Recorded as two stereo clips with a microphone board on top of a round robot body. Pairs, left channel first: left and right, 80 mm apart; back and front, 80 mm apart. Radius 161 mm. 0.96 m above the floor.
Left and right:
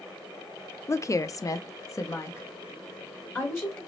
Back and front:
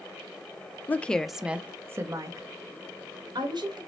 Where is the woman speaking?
125° left, 0.7 m; by 3.8 s 25° left, 1.8 m.